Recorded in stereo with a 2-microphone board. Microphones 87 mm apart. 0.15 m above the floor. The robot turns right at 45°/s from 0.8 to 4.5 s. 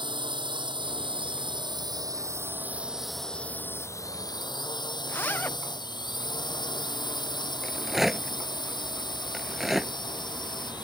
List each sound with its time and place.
0.0 s a drone: 105° right; by 10.9 s 60° left
5.1 s a zipper: 25° left (ahead or behind)
7.6 s a rattle: 5° right (ahead or behind)